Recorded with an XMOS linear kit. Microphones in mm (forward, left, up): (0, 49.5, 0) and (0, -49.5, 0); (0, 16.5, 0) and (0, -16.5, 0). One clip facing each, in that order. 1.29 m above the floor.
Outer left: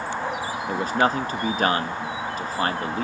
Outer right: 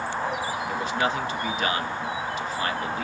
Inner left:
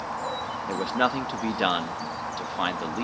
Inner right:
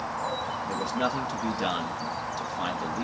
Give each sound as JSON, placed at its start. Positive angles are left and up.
{"t": 0.7, "sound": "a man speaking", "side_deg": 40, "distance_m": 1.7}